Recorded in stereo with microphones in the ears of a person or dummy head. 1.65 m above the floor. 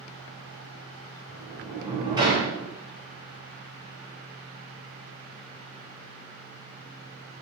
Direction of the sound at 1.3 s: 20° right (ahead or behind).